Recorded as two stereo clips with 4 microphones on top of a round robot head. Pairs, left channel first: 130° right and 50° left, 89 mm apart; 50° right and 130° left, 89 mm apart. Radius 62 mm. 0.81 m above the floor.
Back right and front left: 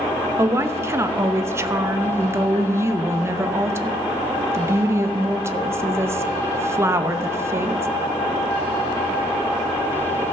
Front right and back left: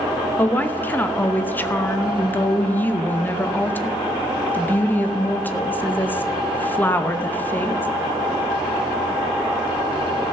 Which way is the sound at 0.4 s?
10° left.